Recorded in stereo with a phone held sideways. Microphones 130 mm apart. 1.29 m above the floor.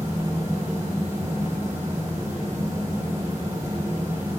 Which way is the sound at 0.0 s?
25° right (ahead or behind).